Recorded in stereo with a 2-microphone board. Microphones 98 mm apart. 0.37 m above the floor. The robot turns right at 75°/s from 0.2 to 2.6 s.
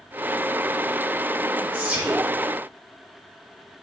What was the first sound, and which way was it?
Whispering, 20° right (ahead or behind).